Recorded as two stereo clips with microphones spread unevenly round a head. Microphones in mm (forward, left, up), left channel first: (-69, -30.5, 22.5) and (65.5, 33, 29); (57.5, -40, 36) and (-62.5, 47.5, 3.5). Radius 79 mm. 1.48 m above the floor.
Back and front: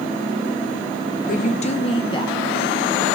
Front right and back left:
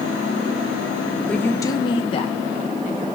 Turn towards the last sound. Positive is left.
turn(degrees=-80)